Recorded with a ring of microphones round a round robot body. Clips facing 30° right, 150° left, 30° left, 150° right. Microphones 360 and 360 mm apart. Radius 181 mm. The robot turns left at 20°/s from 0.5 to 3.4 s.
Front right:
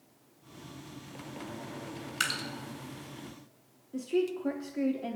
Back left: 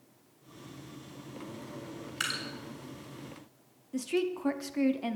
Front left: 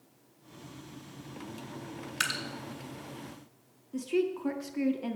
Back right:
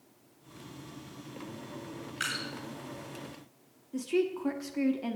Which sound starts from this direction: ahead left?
Dripping, at 2.2 s.